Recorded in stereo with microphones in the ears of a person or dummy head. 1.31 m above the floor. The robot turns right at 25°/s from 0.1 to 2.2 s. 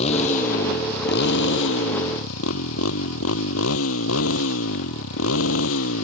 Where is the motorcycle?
35° left; by 6.0 s 85° left.